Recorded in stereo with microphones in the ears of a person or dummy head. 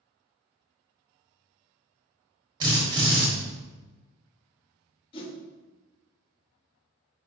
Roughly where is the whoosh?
Left.